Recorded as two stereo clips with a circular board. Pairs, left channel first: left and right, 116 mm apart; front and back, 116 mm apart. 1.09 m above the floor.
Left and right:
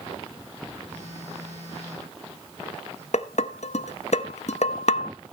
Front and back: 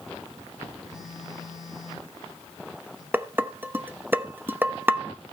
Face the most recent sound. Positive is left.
turn(degrees=105)